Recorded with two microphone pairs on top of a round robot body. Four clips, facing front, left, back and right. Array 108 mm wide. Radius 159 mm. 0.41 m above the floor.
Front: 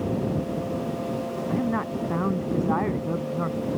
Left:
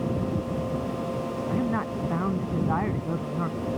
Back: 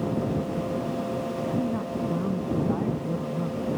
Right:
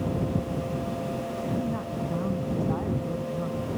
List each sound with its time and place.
1.5 s a woman speaking: 35° left